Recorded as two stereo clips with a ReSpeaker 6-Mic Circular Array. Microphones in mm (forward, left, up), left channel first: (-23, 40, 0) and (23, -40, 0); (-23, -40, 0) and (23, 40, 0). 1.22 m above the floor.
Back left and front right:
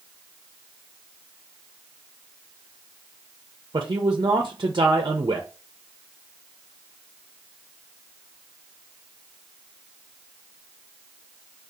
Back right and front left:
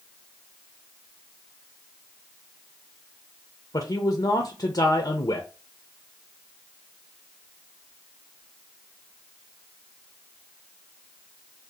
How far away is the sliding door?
I don't hear a sliding door.